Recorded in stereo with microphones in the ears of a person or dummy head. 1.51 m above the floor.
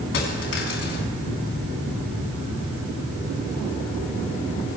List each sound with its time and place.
0.1 s a dropped coin: 65° left (ahead or behind), 4 m